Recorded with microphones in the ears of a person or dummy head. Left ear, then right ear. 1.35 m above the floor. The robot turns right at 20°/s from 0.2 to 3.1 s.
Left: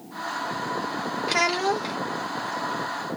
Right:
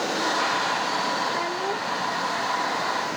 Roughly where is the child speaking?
Left.